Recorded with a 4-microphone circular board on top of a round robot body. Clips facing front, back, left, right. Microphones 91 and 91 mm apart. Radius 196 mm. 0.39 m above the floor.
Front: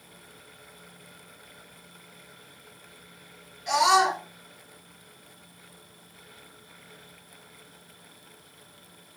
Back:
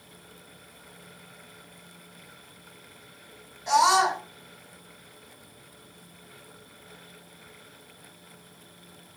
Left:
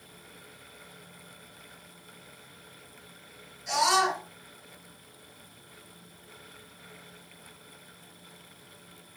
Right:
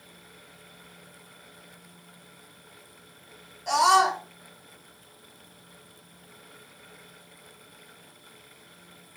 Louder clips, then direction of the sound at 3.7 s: Back 1 dB, right 5 dB; 120° right.